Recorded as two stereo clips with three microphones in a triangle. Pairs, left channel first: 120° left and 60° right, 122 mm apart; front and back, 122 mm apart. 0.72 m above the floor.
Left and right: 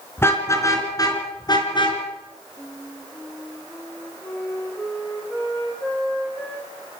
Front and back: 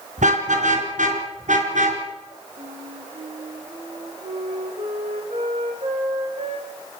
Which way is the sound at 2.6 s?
160° right.